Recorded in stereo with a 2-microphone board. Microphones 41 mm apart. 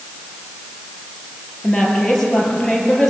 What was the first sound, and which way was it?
A woman speaking, 10° left (ahead or behind).